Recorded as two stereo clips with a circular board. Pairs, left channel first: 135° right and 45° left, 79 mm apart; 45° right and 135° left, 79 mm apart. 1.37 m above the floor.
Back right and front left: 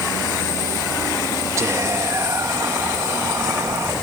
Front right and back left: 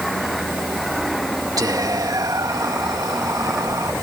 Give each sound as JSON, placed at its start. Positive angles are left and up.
{"t": 1.6, "sound": "whispering", "azimuth_deg": 95}